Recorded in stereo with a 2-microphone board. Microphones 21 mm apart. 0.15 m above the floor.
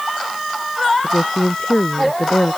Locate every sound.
1.0 s a woman speaking: 75° left (ahead or behind)